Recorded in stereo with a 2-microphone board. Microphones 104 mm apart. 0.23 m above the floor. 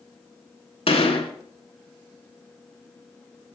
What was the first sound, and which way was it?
A gunshot, 65° left (ahead or behind).